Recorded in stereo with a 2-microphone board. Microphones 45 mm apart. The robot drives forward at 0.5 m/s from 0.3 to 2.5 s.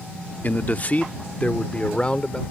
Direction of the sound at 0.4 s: 40° left (ahead or behind).